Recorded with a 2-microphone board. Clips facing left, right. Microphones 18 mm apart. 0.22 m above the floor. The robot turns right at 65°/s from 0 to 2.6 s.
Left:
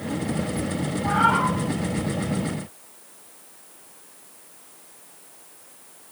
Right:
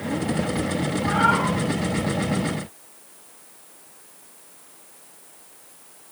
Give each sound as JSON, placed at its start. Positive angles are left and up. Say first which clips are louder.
{"t": 1.0, "sound": "a cat meowing", "louder": "left 1 dB", "azimuth_deg": -105, "distance_m": 2.5}